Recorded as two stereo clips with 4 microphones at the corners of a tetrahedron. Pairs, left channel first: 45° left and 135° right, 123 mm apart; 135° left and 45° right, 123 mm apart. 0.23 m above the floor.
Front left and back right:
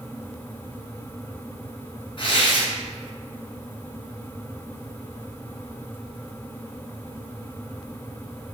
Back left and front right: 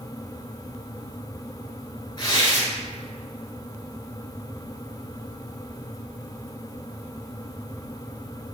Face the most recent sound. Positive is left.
turn(degrees=85)